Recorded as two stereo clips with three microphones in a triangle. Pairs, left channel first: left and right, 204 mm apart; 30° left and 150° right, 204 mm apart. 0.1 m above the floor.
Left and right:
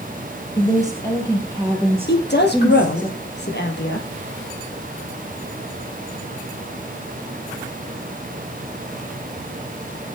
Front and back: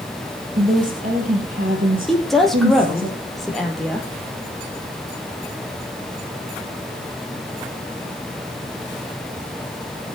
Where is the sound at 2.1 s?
120° left, 3.5 m.